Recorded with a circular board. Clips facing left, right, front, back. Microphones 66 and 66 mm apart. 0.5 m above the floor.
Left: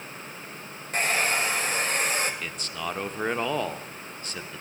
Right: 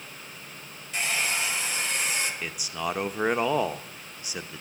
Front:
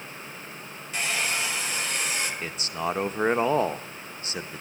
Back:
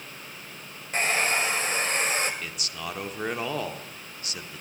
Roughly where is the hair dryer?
Behind left.